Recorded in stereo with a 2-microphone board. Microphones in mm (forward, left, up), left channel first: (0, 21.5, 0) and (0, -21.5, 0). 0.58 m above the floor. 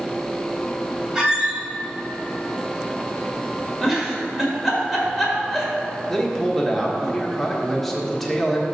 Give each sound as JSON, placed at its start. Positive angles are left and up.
{"t": 1.1, "sound": "a squeak", "side_deg": -15, "distance_m": 2.5}
{"t": 3.8, "sound": "a giggle", "side_deg": -5, "distance_m": 1.9}
{"t": 6.1, "sound": "a man speaking", "side_deg": 10, "distance_m": 1.4}